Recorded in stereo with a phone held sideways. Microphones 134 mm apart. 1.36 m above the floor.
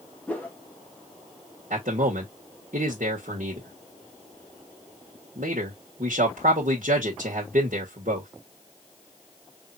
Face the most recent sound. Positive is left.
turn(degrees=-70)  # may be behind; listen again after turning